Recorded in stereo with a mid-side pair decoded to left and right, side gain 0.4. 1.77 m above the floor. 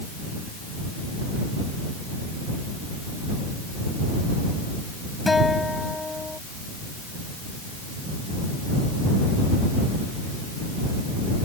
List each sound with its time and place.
5.3 s a guitar: 20° left